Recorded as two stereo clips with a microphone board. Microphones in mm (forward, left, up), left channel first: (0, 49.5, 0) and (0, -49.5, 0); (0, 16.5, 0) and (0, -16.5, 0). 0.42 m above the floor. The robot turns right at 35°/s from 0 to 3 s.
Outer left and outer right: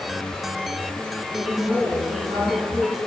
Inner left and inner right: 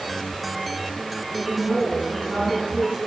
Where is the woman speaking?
155° right, 4 m; by 3.0 s 95° right, 4 m.